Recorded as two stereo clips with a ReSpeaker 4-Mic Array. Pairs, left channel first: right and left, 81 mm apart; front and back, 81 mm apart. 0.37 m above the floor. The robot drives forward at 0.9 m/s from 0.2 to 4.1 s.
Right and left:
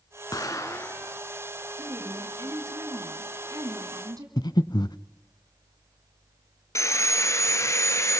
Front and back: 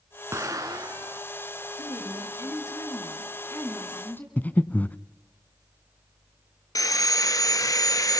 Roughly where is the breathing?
Right.